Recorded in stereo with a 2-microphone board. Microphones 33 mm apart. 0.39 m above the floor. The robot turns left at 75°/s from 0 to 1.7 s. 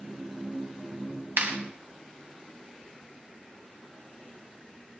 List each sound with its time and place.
1.4 s a clap: 70° right (ahead or behind), 2 m